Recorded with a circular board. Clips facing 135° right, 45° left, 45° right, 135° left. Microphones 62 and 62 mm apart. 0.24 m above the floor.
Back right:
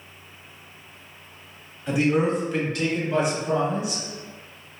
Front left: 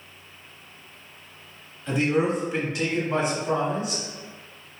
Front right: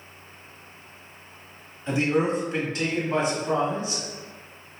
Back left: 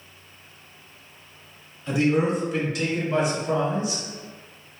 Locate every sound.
1.9 s a man speaking: 65° right, 1.0 m; by 4.0 s 10° left, 1.8 m